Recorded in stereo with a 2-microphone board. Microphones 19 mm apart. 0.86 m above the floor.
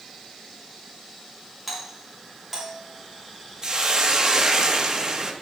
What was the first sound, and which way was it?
A doorbell, 5° right (ahead or behind).